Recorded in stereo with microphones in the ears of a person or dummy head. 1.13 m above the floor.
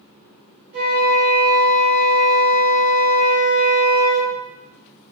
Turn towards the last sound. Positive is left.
turn(degrees=-55)  # may be behind; listen again after turning